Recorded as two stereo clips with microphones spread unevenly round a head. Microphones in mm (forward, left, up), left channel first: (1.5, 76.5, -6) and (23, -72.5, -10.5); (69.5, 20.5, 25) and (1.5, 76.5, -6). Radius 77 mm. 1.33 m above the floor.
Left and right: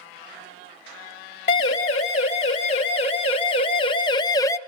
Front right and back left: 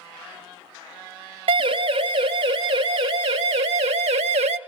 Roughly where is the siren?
Behind left.